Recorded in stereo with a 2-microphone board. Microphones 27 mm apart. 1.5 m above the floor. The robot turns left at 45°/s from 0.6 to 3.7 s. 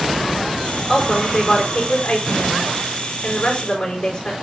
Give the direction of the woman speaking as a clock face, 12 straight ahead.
7 o'clock.